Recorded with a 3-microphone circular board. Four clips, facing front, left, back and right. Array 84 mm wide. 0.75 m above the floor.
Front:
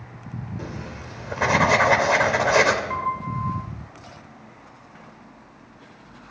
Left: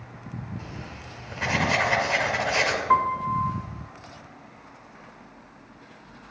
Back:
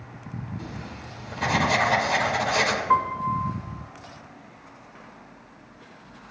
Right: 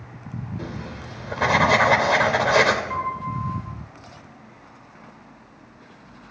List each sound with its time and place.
0.6 s writing: 45° right, 2.5 m
2.9 s a piano: 120° left, 3.5 m